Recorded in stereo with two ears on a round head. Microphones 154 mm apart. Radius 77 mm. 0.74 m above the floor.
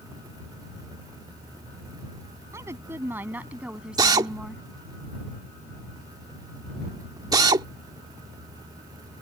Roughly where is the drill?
Right.